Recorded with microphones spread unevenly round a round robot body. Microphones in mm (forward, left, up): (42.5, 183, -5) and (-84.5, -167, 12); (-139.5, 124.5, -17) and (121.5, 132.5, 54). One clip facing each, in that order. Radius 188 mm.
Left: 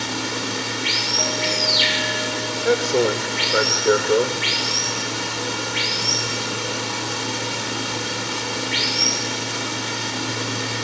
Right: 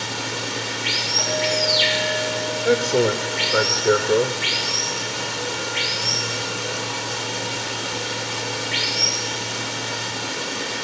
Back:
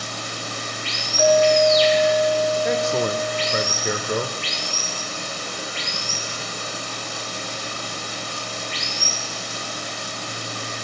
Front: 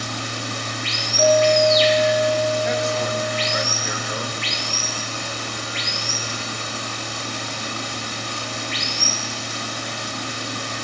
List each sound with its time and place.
0.0 s running water: 25° left, 3.5 m
1.2 s a clink: 75° left, 4 m
2.6 s a man speaking: 160° left, 1.6 m